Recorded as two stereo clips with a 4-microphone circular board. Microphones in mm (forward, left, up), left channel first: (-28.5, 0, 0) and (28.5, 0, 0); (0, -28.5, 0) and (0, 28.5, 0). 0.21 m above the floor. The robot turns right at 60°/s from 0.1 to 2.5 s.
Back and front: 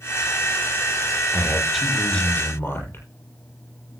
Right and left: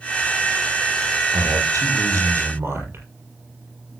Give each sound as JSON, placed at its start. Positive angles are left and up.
{"t": 1.3, "sound": "a man speaking", "azimuth_deg": 65, "distance_m": 6.0}